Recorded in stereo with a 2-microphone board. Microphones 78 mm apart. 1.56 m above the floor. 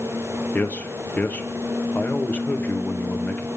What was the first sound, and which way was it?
A man speaking, 20° left (ahead or behind).